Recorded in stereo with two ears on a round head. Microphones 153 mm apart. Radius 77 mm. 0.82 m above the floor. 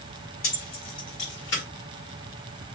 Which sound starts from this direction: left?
Keys jangling, at 0.4 s.